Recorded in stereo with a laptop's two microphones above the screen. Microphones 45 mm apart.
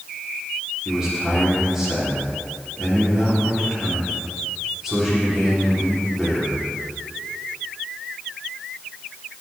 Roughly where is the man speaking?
Centre.